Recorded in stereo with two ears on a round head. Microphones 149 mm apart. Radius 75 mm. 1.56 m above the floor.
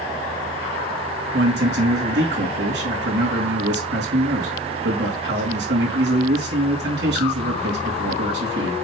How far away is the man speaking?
About 3.5 m.